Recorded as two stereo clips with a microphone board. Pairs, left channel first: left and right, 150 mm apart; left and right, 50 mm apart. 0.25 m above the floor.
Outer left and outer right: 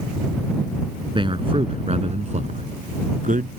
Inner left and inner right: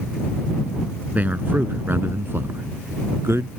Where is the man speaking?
35° right (ahead or behind); by 3.5 s 65° right (ahead or behind).